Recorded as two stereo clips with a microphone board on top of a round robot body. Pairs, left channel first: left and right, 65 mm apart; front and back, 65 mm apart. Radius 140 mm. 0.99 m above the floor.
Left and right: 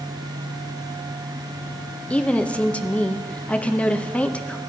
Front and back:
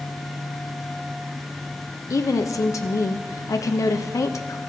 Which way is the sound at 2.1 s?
20° left.